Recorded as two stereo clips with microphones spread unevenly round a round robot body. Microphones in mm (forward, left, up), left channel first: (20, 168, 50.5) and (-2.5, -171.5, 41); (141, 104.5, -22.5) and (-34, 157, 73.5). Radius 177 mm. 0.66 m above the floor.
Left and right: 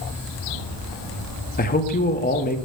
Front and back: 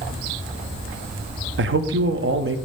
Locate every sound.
1.6 s a man speaking: 140° left, 1.4 m